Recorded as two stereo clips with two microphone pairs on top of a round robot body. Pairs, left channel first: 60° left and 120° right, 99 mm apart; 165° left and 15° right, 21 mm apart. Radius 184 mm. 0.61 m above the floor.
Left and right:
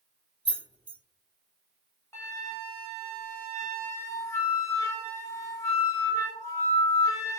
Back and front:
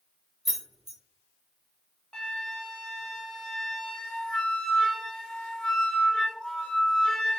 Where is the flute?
125° left, 0.7 m.